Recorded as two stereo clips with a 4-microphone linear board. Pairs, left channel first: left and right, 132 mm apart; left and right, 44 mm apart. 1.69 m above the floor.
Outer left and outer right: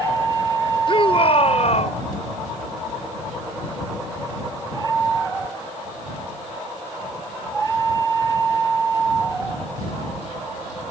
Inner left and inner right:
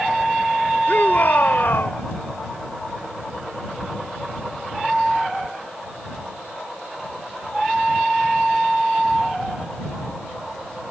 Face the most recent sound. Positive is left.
turn(degrees=60)  # may be behind; listen again after turning